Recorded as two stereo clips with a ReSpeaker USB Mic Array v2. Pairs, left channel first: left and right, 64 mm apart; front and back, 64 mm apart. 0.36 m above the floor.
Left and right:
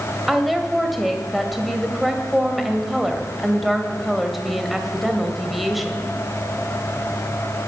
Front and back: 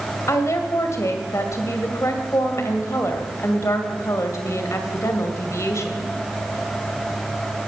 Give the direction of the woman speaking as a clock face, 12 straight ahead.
12 o'clock.